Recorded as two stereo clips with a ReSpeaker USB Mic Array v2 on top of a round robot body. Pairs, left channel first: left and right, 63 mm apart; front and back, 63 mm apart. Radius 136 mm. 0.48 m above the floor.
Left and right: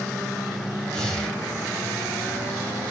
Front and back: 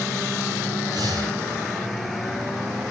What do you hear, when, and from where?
0.9 s breathing: 170° left, 3 m